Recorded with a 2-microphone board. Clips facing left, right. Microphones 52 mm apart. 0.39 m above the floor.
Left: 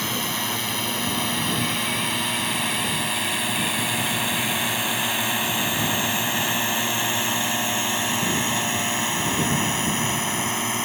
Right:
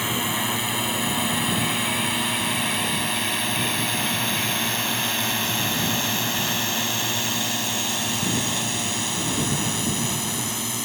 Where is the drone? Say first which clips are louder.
Right 2 dB; 10° right (ahead or behind); by 10.9 s 40° left (ahead or behind).